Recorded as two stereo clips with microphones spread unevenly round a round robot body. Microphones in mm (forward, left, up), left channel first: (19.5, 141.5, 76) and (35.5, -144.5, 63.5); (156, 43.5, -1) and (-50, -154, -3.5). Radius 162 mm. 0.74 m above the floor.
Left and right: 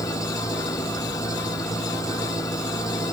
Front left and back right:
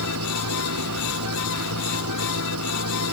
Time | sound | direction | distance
0.0 | an engine running | 170° left | ?